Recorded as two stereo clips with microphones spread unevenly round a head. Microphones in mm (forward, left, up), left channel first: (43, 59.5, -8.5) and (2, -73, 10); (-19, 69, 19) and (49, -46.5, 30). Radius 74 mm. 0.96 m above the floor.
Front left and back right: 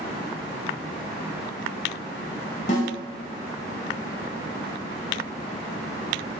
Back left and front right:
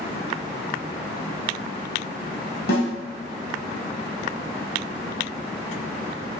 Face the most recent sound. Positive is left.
turn(degrees=115)